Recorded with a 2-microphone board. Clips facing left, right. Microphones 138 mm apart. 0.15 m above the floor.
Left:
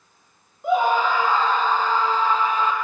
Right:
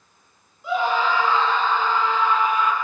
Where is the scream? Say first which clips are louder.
Left 3 dB; 55° left (ahead or behind), 5.5 m; by 2.7 s 30° left (ahead or behind), 5 m.